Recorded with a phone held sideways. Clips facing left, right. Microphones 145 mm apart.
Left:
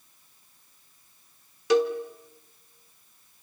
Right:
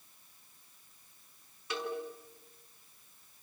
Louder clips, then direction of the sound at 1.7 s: Left 16 dB; 85° left.